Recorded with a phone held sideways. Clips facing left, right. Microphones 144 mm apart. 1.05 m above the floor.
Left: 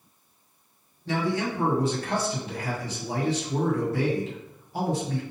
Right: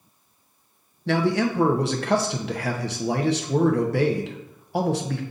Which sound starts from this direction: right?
A man speaking, at 1.1 s.